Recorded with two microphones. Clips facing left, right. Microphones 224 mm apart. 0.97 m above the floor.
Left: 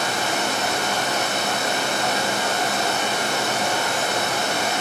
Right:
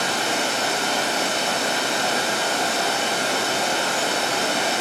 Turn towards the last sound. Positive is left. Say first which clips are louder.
# even
turn(degrees=-30)  # may be behind; listen again after turning